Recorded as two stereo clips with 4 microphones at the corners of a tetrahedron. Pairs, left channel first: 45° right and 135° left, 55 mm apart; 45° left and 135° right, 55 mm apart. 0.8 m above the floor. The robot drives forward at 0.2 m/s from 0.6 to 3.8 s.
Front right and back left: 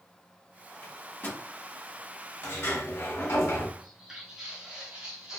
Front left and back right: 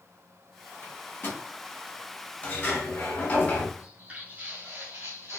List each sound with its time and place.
0.8 s a microwave: 5° left, 1.2 m
2.4 s a sliding door: 10° right, 0.9 m
3.8 s footsteps: 155° right, 0.8 m; by 5.4 s 160° right, 1.3 m